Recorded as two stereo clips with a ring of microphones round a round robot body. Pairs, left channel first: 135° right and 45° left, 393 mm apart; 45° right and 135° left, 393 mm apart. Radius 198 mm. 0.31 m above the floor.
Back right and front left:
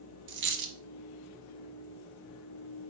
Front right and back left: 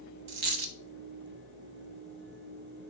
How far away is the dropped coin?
About 1.1 m.